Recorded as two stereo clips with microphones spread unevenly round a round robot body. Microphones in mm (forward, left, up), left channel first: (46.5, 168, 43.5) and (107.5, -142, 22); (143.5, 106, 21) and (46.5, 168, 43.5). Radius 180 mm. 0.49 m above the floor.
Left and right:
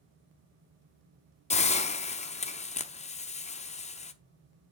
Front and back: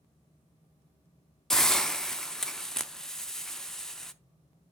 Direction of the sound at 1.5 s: 35° left.